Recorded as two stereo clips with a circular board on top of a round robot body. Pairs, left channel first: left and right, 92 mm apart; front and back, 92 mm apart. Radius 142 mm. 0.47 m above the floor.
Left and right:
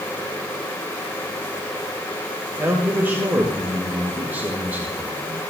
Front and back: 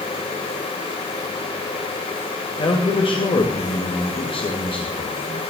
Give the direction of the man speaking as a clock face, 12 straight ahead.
1 o'clock.